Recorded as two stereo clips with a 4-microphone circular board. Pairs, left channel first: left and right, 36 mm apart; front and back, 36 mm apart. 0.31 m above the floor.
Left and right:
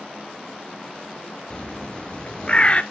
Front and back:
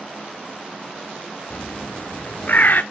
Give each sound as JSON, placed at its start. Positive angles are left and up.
{"t": 1.5, "sound": "a bird", "azimuth_deg": 35, "distance_m": 0.9}